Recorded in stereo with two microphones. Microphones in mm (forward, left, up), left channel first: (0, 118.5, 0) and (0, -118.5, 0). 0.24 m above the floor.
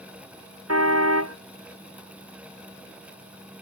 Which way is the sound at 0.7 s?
75° right (ahead or behind).